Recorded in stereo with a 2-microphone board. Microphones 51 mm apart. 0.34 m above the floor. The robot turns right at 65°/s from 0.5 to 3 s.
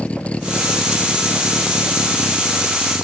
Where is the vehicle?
25° left; by 3.0 s 175° right.